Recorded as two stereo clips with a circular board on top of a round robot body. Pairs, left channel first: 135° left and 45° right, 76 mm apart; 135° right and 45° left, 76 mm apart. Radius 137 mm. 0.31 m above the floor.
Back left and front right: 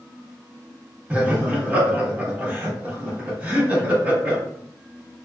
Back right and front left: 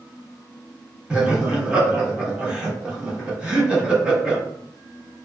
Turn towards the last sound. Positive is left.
turn(degrees=-10)